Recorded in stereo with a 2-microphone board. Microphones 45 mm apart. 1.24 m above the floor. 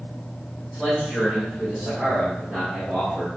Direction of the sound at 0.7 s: 25° right (ahead or behind).